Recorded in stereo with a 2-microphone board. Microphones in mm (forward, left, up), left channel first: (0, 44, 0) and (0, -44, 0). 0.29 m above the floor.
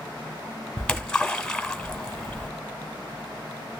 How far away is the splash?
About 0.9 m.